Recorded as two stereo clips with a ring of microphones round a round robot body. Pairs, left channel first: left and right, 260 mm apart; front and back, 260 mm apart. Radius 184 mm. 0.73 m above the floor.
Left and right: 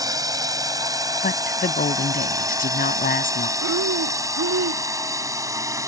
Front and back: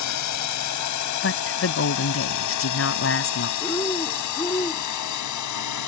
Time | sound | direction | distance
0.0 | a drone | 15° right | ?
1.2 | a woman speaking | 35° left | ?
3.6 | breathing | 75° right | ?